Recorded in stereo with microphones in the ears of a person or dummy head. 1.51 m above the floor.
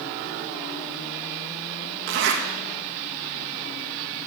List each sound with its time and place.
2.1 s a zipper: 65° right (ahead or behind), 1.7 m